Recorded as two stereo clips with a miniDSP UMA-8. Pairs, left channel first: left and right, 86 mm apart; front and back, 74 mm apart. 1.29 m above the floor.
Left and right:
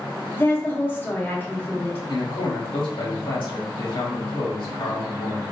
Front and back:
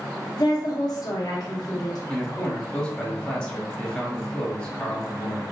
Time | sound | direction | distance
0.4 | a woman speaking | 25° left | 0.8 m
2.1 | a man speaking | 75° left | 1.2 m